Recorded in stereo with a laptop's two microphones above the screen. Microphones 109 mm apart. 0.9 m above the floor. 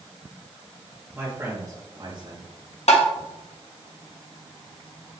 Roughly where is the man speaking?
Centre.